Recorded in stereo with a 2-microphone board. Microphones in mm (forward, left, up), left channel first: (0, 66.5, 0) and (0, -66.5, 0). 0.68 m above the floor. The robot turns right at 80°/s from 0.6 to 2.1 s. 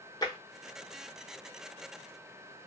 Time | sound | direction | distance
0.2 | tapping | 30° left (ahead or behind) | 1.1 m